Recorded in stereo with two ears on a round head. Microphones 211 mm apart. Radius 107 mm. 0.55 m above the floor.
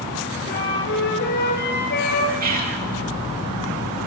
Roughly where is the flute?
Left.